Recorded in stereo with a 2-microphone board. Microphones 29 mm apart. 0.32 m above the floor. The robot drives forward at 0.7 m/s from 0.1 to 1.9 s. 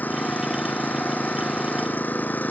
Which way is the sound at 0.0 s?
85° left.